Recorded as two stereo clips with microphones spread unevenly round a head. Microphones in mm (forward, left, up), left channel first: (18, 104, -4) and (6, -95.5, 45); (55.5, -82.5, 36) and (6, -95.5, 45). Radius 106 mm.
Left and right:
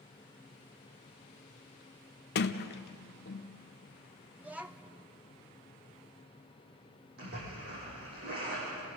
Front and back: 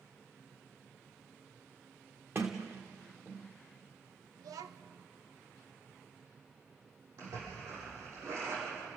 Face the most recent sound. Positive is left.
turn(degrees=-140)